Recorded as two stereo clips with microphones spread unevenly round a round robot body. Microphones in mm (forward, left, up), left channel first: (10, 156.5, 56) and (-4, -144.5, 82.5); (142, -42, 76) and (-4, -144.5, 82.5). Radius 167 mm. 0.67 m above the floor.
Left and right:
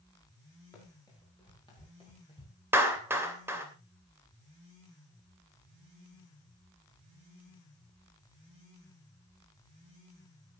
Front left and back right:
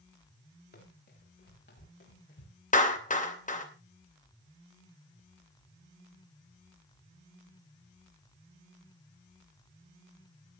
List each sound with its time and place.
0.7 s running footsteps: 5° left, 8 m; by 2.5 s 15° left, 7 m
2.7 s a clap: 10° right, 3 m